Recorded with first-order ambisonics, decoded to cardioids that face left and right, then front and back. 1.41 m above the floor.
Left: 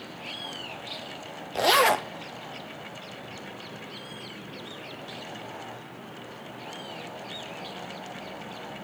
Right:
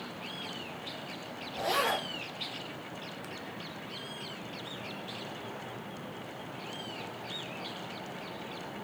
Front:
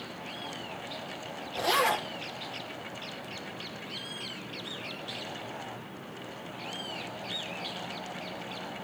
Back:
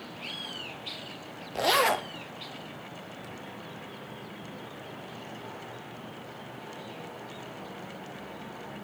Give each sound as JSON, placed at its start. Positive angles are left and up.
{"t": 1.6, "sound": "a zipper", "azimuth_deg": 110, "distance_m": 0.8}